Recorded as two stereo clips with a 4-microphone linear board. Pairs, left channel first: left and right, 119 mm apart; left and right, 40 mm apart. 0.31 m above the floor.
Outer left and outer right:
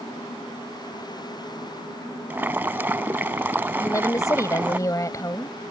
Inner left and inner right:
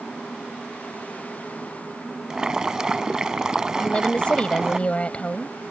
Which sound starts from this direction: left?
A woman speaking, at 3.8 s.